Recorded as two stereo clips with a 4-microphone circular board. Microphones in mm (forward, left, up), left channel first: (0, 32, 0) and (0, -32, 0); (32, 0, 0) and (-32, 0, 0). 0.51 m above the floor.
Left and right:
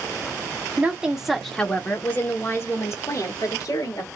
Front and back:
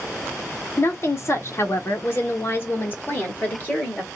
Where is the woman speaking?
30° right, 0.9 m; by 4.1 s 65° left, 1.9 m.